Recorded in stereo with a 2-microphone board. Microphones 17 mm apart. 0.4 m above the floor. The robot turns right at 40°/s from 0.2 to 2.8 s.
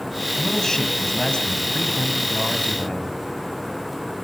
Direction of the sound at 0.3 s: 25° left.